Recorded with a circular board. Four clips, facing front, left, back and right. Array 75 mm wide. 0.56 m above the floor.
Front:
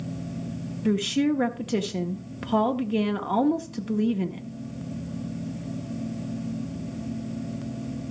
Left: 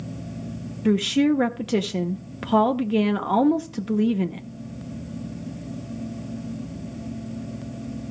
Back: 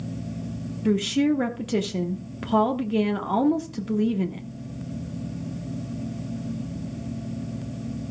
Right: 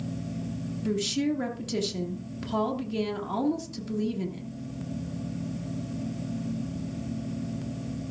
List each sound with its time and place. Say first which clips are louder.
0.8 s a woman speaking: left 8 dB, back 2 dB; 95° left, 0.7 m